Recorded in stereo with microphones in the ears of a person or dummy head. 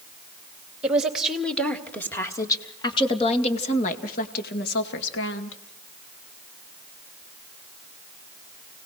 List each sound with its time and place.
0.8 s a woman speaking: 5° right (ahead or behind), 2.5 m; by 5.6 s 70° left (ahead or behind), 2.5 m